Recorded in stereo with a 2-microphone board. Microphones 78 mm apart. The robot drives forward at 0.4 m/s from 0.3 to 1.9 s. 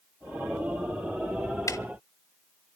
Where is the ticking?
45° left (ahead or behind), 0.6 m; by 1.8 s 40° left (ahead or behind), 0.6 m.